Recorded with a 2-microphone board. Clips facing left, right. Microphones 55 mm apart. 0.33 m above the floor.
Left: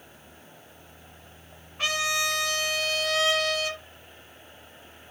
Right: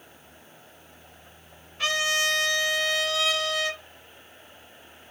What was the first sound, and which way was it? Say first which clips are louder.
A trumpet: right 2 dB; 25° left (ahead or behind).